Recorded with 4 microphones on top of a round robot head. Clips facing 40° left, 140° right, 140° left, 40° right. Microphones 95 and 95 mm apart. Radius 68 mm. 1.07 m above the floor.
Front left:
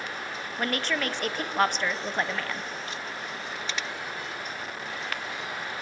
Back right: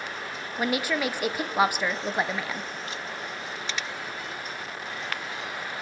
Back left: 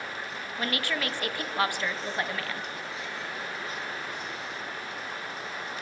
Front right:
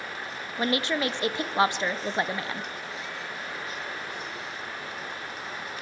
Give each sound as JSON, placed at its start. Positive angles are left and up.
{"t": 0.6, "sound": "a woman speaking", "azimuth_deg": -70, "distance_m": 0.6}